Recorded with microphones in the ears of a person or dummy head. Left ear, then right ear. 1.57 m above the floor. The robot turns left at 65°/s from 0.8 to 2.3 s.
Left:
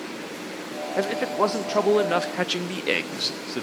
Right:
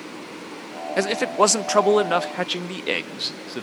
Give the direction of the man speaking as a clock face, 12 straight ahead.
3 o'clock.